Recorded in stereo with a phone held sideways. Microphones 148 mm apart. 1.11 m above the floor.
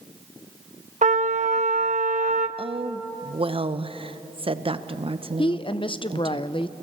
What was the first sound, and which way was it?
A trumpet, 55° right (ahead or behind).